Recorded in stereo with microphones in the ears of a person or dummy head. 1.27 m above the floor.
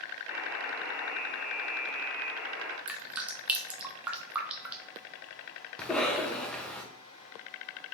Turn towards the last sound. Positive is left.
turn(degrees=5)  # may be behind; listen again after turning